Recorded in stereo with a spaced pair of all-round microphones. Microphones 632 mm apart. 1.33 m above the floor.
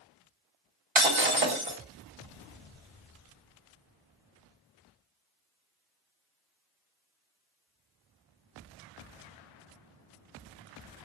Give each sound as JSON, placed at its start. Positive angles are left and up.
{"t": 0.9, "sound": "breaking glass", "side_deg": -50, "distance_m": 1.6}